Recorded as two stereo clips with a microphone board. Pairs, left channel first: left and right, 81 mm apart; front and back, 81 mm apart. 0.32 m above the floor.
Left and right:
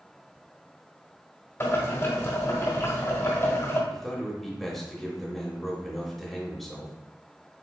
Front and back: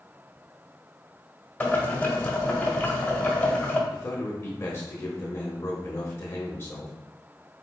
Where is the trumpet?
No trumpet in this recording.